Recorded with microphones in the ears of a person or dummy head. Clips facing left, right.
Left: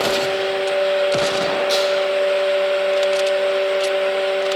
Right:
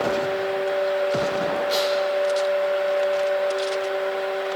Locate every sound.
1.7 s tearing paper: 60° left (ahead or behind), 6 m